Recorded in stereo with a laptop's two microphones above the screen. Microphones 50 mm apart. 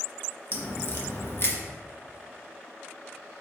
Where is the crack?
50° left (ahead or behind), 1.1 m.